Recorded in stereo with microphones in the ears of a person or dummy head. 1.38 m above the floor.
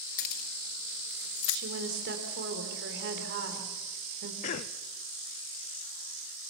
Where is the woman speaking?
70° right (ahead or behind), 4 m.